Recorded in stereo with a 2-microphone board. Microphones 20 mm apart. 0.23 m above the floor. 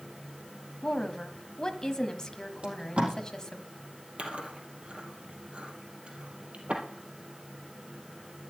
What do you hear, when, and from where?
0.8 s a woman speaking: 35° left (ahead or behind), 1.3 m
2.6 s tape being pulled: 65° right (ahead or behind), 4 m
4.2 s chewing: 75° right (ahead or behind), 3 m